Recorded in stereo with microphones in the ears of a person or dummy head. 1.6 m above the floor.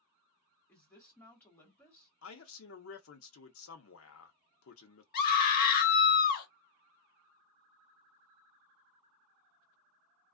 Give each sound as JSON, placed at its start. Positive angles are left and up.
{"t": 0.7, "sound": "a woman speaking", "side_deg": 15, "distance_m": 1.2}
{"t": 2.2, "sound": "a man speaking", "side_deg": 80, "distance_m": 0.6}
{"t": 5.1, "sound": "a scream", "side_deg": 50, "distance_m": 0.8}